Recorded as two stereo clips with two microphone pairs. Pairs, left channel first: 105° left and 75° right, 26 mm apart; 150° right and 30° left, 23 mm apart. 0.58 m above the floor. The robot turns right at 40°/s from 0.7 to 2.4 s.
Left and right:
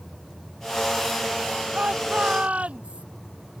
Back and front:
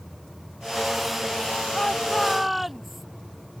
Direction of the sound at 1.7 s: 80° right.